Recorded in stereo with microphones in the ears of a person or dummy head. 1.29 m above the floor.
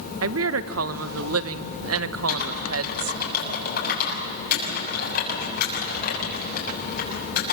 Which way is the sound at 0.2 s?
80° right.